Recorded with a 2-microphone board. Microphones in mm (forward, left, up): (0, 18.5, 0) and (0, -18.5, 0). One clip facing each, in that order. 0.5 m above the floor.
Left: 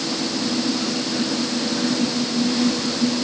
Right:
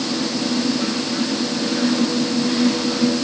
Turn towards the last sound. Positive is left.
No sound to turn to.